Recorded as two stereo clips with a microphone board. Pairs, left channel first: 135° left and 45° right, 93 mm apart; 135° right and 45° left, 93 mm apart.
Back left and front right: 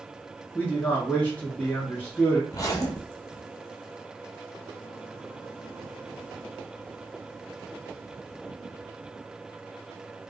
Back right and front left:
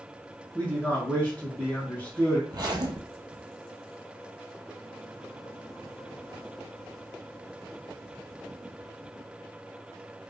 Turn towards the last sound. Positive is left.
turn(degrees=90)